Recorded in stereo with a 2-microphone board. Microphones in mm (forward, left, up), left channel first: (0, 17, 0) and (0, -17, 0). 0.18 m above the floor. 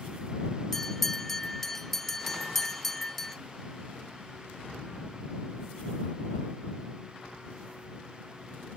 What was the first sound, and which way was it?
A bell, 10° left (ahead or behind).